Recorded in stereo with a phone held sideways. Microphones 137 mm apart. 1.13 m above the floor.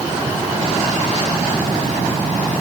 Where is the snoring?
No snoring in this recording.